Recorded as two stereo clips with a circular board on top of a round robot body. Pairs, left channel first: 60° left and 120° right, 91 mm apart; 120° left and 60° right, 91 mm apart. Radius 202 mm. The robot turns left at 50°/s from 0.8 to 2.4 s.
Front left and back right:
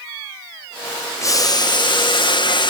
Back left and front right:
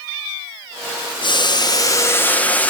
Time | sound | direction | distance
1.2 | boiling | 110° left | 2 m